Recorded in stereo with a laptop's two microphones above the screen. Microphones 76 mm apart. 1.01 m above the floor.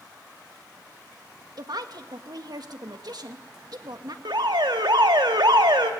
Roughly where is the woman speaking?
Right.